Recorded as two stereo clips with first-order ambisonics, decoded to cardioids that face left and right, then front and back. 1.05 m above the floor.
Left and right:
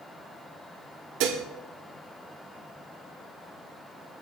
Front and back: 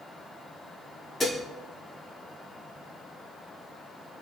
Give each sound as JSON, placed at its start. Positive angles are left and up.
{"t": 1.2, "sound": "dishes clattering", "azimuth_deg": -80, "distance_m": 1.6}